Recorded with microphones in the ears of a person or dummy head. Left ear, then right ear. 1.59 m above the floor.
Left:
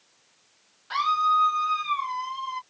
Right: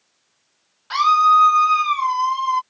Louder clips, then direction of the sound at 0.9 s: Right 9 dB; 45° right (ahead or behind).